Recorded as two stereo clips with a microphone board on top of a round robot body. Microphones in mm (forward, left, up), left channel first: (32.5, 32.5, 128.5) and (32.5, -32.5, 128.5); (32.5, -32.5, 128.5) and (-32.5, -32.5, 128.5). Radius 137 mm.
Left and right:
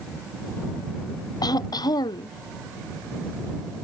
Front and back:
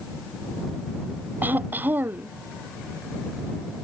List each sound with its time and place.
1.4 s throat clearing: 115° left